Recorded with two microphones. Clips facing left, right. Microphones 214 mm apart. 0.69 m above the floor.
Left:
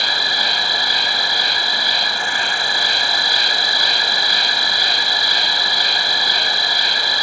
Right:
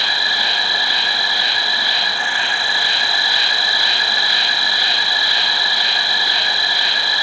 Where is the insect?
45° left (ahead or behind), 1.2 m.